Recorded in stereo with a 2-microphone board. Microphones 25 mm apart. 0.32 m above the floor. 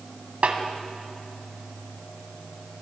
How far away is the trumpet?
No trumpet in this recording.